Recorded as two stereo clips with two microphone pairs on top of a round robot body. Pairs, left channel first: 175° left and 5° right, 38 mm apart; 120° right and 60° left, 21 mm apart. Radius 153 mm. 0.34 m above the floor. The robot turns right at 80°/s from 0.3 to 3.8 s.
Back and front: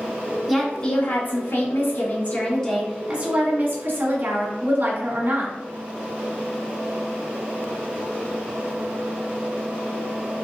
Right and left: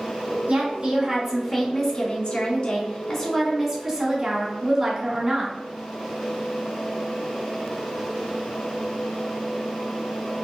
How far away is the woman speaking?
About 2.0 m.